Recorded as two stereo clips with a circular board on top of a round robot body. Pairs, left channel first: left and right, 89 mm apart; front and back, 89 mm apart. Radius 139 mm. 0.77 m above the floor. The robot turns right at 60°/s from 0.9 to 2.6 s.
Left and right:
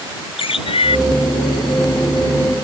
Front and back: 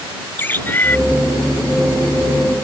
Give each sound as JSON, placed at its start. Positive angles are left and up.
{"t": 0.4, "sound": "a bird", "azimuth_deg": 70}